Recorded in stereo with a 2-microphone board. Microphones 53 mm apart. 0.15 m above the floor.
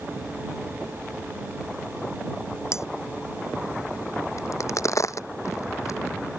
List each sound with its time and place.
2.7 s cutlery clinking: 60° left (ahead or behind)
4.4 s a crack: 65° left (ahead or behind)